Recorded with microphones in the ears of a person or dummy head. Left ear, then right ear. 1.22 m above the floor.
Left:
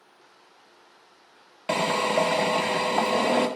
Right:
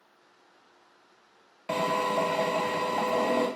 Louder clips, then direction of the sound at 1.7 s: Left 3 dB; 25° left (ahead or behind).